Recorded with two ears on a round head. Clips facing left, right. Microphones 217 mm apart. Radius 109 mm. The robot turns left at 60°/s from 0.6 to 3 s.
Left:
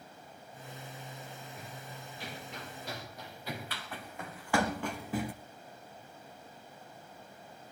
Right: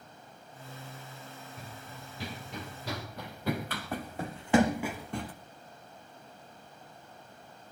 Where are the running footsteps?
25° right (ahead or behind), 4.5 m; by 5.3 s 15° left (ahead or behind), 1.6 m.